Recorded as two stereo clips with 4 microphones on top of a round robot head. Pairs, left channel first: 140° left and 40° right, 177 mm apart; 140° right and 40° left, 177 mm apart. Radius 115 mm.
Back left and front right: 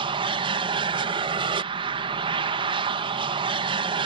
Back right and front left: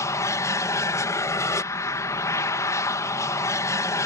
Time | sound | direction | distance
0.0 | an aircraft | 80° right | ?